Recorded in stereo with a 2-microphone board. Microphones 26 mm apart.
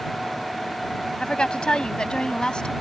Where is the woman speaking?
35° left (ahead or behind).